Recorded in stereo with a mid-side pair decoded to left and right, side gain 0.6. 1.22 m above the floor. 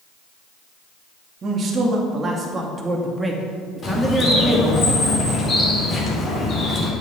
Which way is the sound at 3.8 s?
35° left.